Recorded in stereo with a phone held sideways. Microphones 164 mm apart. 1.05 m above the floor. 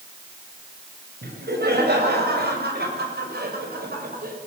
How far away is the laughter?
About 7 m.